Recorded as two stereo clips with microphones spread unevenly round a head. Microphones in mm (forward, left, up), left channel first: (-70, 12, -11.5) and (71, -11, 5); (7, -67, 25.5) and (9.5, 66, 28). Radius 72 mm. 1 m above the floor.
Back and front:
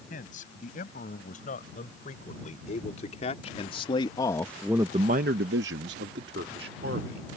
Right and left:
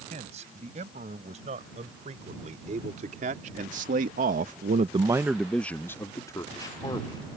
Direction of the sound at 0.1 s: 135° left.